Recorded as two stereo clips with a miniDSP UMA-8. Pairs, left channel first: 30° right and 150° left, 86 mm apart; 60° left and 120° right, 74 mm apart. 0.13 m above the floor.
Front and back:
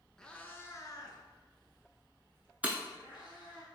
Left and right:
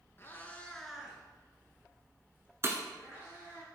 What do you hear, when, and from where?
0.2 s a cat meowing: 50° left, 0.6 m; by 3.6 s 65° right, 2.5 m
2.6 s breaking glass: 145° right, 0.6 m